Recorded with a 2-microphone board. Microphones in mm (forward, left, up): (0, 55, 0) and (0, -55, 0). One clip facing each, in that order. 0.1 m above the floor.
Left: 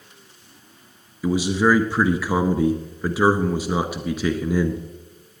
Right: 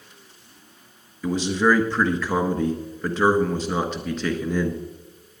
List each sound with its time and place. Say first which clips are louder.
1.2 s a man speaking: left 1 dB; 10° left (ahead or behind), 1.1 m